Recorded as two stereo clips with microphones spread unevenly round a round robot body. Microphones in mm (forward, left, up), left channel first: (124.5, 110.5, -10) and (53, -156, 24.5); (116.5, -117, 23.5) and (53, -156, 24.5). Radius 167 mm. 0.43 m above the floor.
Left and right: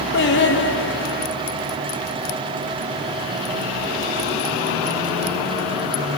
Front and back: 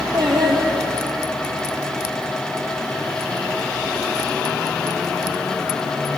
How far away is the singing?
About 2.0 m.